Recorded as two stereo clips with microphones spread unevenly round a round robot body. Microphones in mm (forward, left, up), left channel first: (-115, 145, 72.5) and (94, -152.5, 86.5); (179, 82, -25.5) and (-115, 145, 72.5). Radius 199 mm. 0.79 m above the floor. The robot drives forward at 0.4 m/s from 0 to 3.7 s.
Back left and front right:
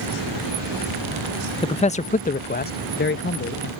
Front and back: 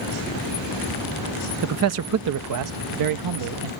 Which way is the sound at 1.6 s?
170° left.